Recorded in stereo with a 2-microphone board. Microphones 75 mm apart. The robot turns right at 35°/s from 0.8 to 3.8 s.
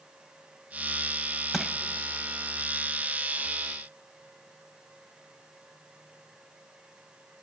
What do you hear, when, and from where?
1.5 s crushing: centre (ahead or behind), 1.0 m; by 1.8 s 5° right (ahead or behind), 1.0 m